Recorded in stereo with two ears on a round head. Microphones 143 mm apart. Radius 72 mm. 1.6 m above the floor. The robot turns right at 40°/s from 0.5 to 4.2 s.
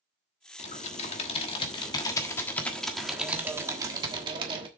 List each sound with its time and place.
0.6 s typing on a keyboard: 85° left, 1.4 m; by 4.7 s 130° right, 1.4 m